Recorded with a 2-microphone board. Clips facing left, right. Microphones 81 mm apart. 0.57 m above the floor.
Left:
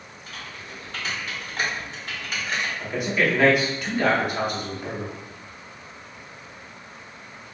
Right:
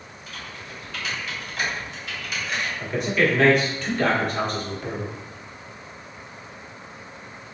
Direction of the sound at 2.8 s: 5° left (ahead or behind).